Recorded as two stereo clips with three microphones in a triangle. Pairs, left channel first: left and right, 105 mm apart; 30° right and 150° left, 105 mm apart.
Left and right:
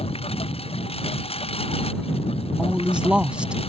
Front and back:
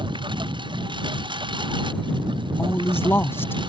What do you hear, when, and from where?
0.0 s a lawn mower: 110° left
2.6 s a man speaking: 30° right